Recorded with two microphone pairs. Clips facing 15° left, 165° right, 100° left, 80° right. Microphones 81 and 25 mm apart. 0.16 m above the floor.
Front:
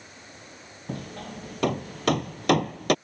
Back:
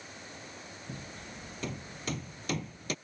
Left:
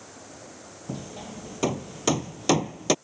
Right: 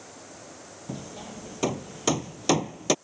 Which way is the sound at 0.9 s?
15° left.